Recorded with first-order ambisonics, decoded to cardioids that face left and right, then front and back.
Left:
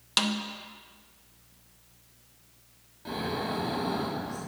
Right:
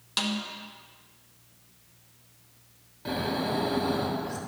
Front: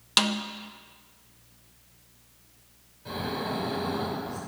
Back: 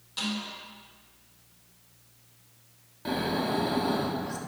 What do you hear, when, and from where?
0.2 s a snare drum: 20° left, 0.6 m
3.0 s snoring: 160° right, 1.4 m